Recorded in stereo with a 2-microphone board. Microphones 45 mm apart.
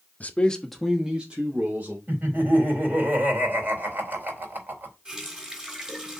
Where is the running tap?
20° right (ahead or behind), 3.5 m.